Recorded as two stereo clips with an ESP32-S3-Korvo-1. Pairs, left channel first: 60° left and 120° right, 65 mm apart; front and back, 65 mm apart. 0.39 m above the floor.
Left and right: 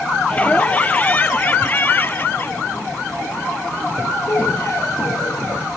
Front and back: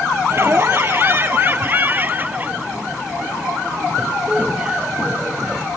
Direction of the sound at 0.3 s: 130° left.